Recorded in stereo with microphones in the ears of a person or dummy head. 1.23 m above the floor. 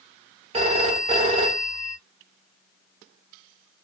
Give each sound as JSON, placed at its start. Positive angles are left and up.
{"t": 0.5, "sound": "a phone ringing", "side_deg": -35, "distance_m": 1.2}